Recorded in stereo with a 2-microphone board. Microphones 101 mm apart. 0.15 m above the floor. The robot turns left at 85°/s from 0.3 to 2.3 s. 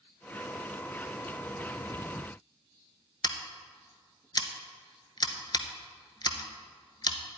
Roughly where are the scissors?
Left.